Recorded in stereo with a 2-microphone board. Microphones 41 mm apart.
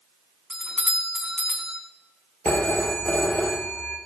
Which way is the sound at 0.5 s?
10° right (ahead or behind).